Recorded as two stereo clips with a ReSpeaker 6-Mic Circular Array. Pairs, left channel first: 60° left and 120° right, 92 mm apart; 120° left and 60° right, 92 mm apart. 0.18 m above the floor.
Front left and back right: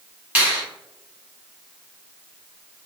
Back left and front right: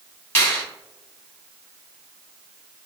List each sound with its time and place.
0.3 s a finger snap: 175° left, 1.5 m